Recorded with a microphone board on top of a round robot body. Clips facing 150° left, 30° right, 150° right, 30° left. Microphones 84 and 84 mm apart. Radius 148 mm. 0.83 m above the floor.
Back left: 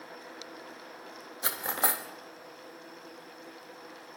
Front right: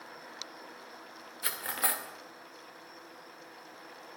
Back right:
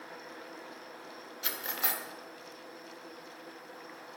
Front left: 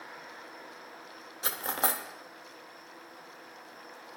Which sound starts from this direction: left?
Cutlery clinking, at 1.4 s.